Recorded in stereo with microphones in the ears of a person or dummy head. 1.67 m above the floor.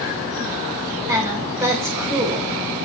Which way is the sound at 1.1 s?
15° right (ahead or behind).